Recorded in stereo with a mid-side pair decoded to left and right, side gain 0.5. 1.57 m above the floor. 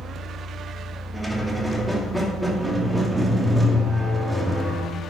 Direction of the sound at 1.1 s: 5° right.